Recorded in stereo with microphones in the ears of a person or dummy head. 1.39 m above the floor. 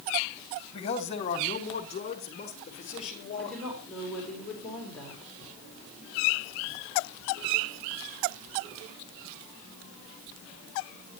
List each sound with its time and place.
0.7 s a man speaking: 30° left (ahead or behind), 2.5 m; by 3.7 s 40° left (ahead or behind), 6 m
3.4 s a woman speaking: 5° left (ahead or behind), 5.5 m